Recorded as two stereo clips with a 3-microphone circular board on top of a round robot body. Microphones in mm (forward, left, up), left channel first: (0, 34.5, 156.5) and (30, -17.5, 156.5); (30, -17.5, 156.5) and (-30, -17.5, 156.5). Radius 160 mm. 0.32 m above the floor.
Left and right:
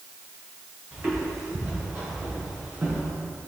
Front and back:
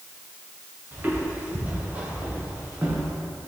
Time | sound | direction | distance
0.9 | footsteps | 115° right | 4.5 m